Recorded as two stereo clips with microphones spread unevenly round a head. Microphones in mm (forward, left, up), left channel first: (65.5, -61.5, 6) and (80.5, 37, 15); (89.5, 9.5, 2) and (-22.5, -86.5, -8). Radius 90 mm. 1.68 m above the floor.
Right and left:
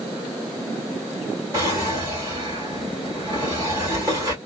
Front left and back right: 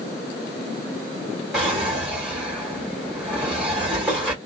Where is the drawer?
130° left, 1.7 m.